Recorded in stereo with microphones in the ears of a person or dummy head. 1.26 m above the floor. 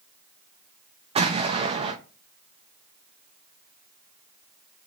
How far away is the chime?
I don't hear a chime.